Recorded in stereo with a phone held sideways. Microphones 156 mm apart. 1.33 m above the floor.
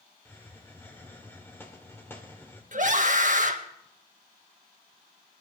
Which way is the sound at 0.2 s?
15° left (ahead or behind).